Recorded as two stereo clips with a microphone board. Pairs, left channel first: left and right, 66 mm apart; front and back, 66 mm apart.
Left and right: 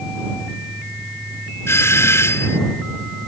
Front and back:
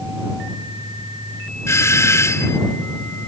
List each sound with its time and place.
1.7 s a doorbell: 45° left